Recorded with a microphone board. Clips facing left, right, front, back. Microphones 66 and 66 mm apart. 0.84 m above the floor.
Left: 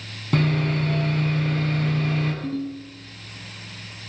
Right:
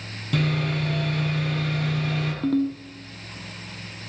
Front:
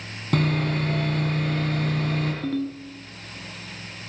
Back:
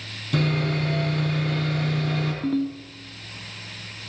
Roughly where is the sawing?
Ahead left.